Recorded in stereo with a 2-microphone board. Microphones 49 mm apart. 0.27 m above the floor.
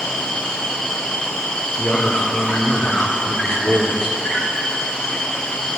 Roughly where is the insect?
Centre.